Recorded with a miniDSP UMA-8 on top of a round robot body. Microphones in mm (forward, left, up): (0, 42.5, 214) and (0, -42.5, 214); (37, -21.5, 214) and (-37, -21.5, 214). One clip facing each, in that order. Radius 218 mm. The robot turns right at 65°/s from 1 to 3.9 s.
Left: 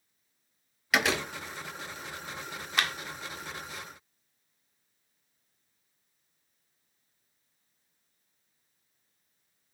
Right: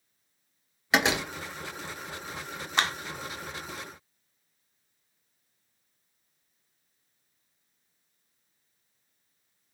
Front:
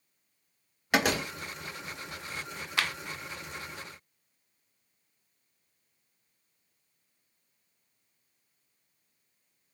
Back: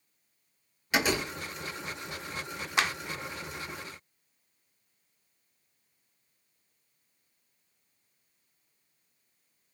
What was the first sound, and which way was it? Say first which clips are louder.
A door slam: right 2 dB, front 1 dB; 30° right.